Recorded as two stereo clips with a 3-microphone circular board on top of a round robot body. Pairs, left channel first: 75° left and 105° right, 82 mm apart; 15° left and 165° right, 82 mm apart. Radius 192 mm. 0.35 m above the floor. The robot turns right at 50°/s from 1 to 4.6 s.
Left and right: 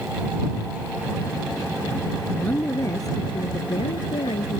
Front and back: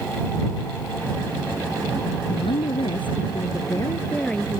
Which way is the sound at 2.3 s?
5° right.